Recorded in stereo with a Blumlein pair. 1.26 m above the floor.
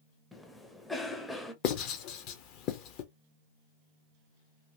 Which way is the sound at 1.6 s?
40° left.